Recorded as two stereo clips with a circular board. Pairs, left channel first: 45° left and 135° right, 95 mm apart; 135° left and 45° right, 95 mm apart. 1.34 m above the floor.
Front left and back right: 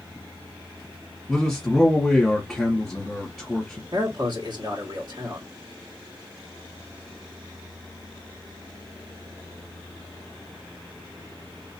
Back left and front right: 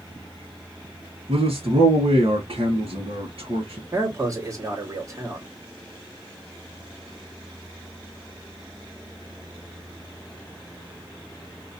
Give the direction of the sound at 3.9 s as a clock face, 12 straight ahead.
3 o'clock.